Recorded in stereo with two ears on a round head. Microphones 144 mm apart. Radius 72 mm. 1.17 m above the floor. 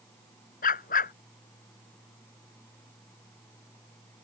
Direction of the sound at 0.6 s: 55° left (ahead or behind).